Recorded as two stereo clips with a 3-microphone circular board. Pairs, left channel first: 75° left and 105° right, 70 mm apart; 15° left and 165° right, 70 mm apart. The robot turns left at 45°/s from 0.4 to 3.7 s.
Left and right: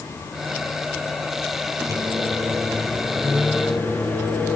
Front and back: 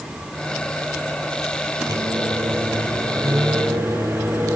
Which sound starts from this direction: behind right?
A microwave, at 1.9 s.